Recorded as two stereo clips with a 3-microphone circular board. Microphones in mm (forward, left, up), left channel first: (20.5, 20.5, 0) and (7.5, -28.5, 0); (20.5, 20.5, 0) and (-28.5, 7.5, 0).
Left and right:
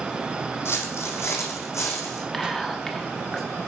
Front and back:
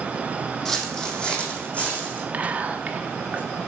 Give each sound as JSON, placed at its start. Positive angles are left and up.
{"t": 0.7, "sound": "footsteps", "azimuth_deg": 95, "distance_m": 1.3}
{"t": 2.3, "sound": "whispering", "azimuth_deg": 155, "distance_m": 0.9}